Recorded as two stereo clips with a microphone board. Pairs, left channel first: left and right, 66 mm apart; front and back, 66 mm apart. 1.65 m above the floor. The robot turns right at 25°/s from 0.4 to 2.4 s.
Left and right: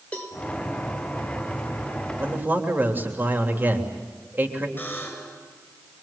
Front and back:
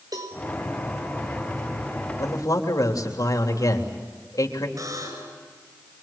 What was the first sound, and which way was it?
A cowbell, 160° left.